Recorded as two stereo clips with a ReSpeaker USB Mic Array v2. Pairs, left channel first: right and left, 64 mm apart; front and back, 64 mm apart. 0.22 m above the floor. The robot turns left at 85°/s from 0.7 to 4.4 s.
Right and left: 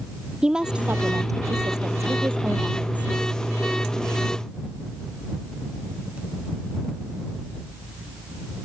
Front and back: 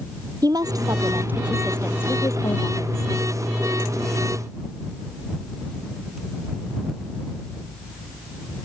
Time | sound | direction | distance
0.4 | a woman speaking | 170° left | ?